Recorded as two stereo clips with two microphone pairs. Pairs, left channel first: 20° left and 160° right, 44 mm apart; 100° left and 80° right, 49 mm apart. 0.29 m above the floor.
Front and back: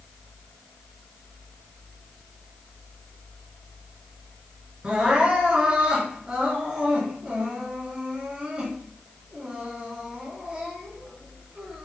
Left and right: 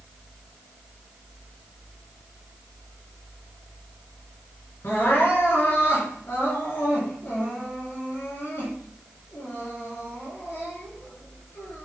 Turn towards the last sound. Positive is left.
turn(degrees=130)